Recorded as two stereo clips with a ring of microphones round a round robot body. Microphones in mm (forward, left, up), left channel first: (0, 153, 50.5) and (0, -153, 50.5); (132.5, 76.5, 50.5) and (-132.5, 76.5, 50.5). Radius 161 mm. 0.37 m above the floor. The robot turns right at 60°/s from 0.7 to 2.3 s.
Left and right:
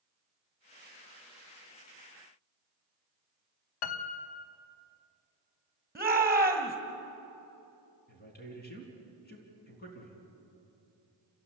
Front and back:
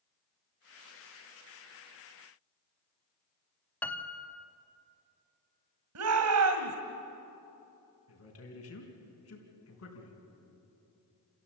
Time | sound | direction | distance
3.8 | a piano | 85° left | 1.0 m
6.0 | a shout | 170° right | 1.9 m
8.1 | a man speaking | 30° left | 4.5 m